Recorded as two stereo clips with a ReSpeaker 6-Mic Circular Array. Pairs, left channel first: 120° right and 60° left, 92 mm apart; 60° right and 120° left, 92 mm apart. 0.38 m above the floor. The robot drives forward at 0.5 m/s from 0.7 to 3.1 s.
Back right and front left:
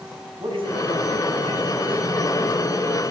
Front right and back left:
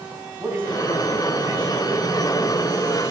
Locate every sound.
0.4 s a man speaking: 55° left, 2.5 m; by 1.7 s 65° left, 2.5 m